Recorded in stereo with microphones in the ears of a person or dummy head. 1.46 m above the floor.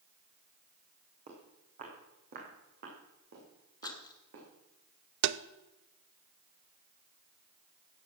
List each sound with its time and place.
1.3 s footsteps: 40° right (ahead or behind), 4.5 m; by 4.5 s 65° right (ahead or behind), 6 m
3.8 s a rattle: 20° left (ahead or behind), 0.8 m
5.2 s tapping: 65° right (ahead or behind), 0.7 m